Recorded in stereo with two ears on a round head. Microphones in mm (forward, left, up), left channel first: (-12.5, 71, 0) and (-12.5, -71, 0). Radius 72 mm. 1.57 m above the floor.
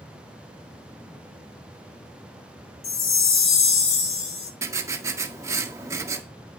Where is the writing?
20° right (ahead or behind), 1.7 m.